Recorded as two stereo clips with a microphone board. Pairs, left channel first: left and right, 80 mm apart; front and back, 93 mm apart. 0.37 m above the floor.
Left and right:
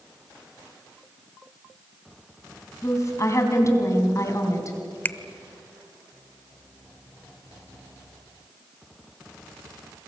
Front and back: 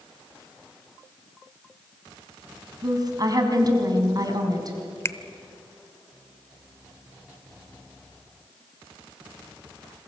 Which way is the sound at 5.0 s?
40° left.